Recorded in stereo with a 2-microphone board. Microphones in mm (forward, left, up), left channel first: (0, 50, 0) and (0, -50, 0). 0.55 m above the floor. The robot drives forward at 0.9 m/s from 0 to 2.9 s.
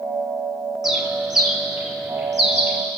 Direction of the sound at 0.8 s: 5° right (ahead or behind).